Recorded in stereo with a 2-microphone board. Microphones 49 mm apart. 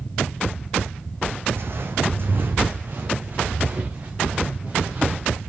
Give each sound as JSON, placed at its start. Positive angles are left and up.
{"t": 1.5, "sound": "footsteps", "side_deg": -60, "distance_m": 1.4}